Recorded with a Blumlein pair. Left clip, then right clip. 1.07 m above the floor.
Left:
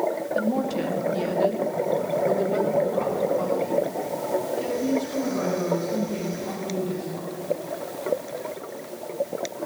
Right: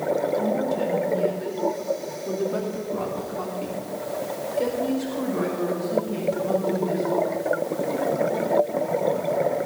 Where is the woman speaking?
60° left, 3 m; by 7.3 s 35° right, 8 m.